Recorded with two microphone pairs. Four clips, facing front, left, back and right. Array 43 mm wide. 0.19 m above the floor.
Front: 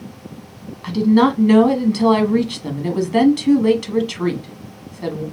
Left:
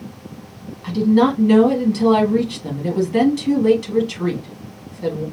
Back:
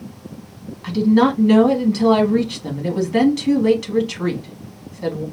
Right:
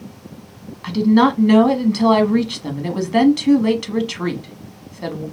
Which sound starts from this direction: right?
A woman speaking, at 0.8 s.